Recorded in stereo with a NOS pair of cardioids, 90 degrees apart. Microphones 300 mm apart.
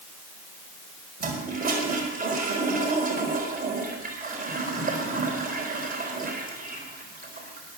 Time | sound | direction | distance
1.2 | a toilet flushing | 30° right | 4 m